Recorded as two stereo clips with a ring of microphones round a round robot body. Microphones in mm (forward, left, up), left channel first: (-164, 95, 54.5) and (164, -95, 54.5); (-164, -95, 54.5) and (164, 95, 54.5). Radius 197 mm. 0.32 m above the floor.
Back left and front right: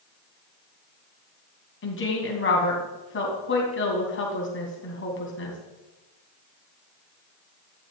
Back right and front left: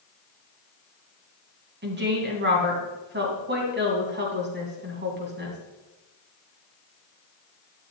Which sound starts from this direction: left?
A woman speaking, at 1.8 s.